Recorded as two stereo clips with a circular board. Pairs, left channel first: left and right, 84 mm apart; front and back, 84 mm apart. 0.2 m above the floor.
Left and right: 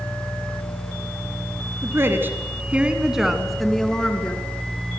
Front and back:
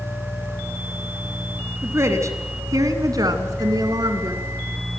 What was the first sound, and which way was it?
A woman speaking, 135° right.